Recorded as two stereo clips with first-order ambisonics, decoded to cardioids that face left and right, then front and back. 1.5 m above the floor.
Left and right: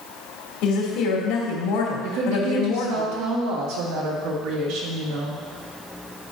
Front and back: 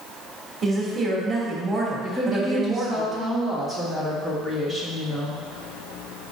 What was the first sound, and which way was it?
A woman speaking, 115° left.